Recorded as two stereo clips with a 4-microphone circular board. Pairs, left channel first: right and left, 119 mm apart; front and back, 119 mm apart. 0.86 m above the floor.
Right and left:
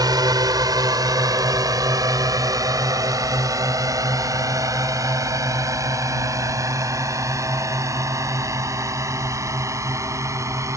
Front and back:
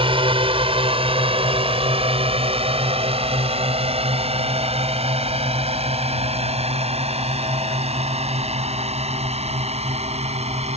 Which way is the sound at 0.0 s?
145° left.